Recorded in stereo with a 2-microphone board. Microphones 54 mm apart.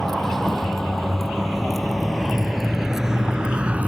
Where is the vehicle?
5° left (ahead or behind); by 3.9 s 30° right (ahead or behind).